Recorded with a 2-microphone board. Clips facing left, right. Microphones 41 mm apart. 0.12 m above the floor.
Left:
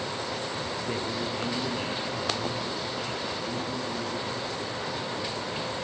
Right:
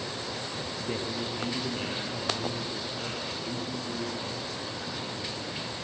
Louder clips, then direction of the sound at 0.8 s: Even; 5° left (ahead or behind).